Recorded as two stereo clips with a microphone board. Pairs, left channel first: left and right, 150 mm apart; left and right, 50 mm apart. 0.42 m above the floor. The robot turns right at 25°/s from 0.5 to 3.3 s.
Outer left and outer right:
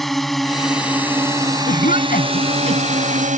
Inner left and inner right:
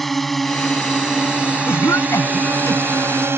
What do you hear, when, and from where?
0.0 s a drone: centre (ahead or behind); by 3.4 s 55° right (ahead or behind)
1.7 s a cough: 70° left (ahead or behind); by 3.1 s 60° left (ahead or behind)